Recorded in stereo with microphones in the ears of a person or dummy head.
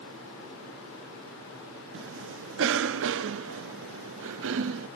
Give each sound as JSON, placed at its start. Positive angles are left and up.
{"t": 1.9, "sound": "a cough", "side_deg": -65, "distance_m": 0.7}